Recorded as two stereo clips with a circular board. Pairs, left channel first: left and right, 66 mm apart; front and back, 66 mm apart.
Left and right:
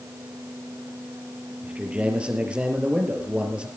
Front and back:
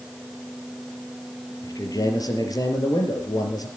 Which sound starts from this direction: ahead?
A man speaking, at 1.6 s.